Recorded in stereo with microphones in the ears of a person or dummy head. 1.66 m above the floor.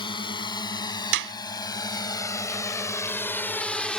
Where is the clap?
65° right (ahead or behind).